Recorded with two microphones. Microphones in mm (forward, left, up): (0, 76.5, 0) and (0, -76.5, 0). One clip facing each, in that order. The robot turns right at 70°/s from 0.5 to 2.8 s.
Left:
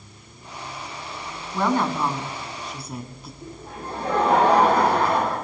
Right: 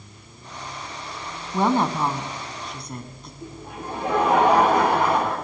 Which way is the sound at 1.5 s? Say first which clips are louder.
Right 2 dB; 25° right (ahead or behind).